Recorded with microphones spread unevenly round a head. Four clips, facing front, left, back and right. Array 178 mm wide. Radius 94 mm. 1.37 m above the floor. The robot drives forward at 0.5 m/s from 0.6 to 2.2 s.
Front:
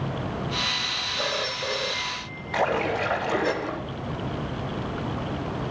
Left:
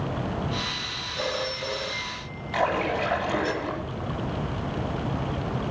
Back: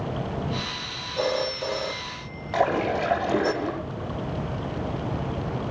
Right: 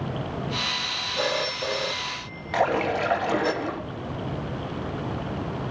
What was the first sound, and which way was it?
A phone ringing, 155° right.